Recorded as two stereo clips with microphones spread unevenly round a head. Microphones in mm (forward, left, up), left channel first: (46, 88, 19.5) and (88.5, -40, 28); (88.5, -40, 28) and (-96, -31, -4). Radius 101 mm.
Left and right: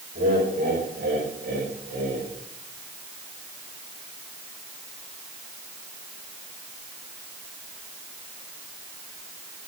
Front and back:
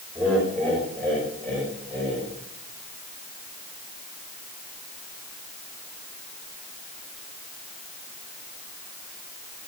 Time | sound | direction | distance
0.1 | laughter | 80° right | 5.5 m